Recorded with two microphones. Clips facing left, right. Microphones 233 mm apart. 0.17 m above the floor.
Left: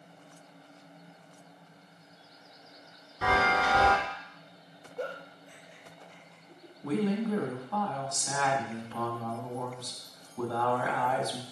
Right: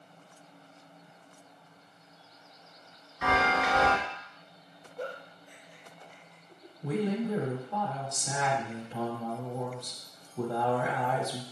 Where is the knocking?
I don't hear knocking.